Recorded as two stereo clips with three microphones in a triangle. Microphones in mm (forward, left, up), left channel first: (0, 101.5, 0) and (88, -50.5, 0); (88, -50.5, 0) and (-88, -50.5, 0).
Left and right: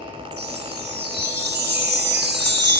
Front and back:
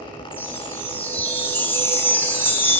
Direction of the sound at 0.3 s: 80° right.